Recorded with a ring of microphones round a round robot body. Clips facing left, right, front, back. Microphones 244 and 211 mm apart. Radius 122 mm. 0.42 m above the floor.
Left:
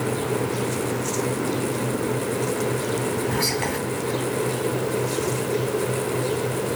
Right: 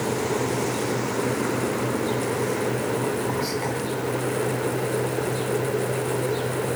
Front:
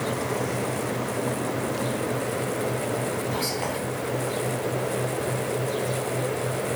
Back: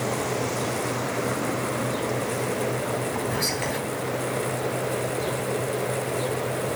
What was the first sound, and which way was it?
Whispering, 115° left.